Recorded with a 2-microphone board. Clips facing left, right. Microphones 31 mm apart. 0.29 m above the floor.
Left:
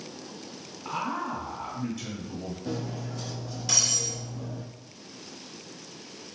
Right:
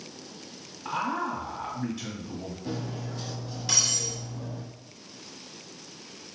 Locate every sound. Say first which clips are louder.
0.8 s a man speaking: right 2 dB; 20° right (ahead or behind), 1.9 m
2.6 s cutlery clinking: even; 15° right (ahead or behind), 1.3 m